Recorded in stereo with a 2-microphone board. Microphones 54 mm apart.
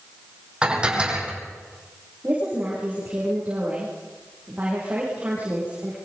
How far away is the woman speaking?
About 8.5 m.